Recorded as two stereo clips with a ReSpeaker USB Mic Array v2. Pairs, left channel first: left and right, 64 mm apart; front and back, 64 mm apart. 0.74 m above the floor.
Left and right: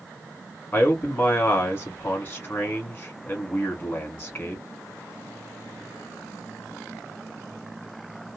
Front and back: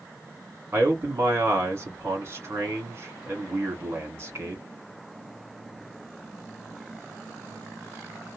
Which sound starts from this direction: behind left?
A man speaking, at 0.7 s.